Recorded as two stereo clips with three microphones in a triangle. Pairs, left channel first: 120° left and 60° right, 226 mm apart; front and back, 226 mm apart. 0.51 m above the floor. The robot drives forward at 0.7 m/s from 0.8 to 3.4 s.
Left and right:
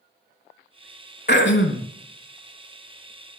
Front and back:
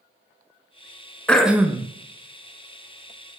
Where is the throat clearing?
85° left, 0.7 m; by 1.9 s 115° left, 0.8 m.